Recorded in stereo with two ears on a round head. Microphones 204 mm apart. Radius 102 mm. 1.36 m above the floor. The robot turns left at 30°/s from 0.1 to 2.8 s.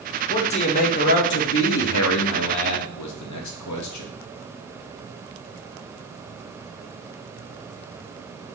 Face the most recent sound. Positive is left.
turn(degrees=80)